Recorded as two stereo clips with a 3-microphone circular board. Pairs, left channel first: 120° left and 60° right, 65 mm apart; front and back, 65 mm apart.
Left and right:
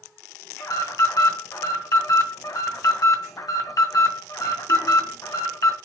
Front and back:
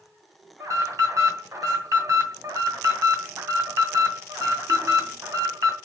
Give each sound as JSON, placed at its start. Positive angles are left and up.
{"t": 0.6, "sound": "an alarm", "azimuth_deg": 145, "distance_m": 2.0}